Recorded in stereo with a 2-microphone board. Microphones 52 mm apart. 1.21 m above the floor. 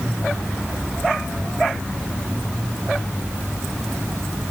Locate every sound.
Only background noise.